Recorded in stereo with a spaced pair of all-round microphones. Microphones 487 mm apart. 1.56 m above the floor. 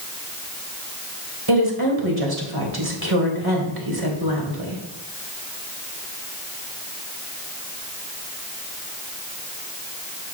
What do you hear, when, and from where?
1.5 s a woman speaking: 50° right (ahead or behind), 2 m